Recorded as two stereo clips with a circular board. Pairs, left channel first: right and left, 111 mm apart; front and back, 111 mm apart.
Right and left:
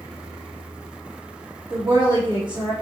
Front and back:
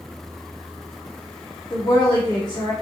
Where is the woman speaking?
45° left, 1.2 m.